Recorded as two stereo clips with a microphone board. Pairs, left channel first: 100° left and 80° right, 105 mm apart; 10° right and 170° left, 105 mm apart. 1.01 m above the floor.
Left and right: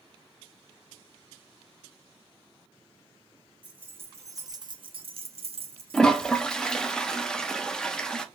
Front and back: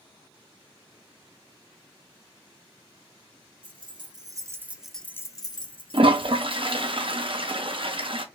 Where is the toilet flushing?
Straight behind, 0.5 m.